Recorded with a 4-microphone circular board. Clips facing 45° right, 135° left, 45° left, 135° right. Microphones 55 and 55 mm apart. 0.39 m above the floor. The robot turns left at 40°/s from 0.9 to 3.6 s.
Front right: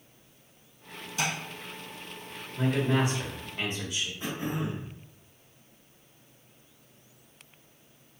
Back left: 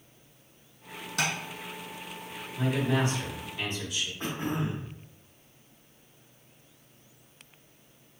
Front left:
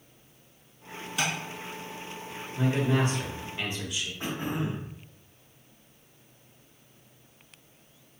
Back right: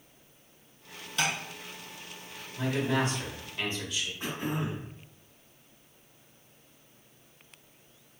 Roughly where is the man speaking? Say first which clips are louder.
Front right 1 dB, front left 2 dB; ahead left.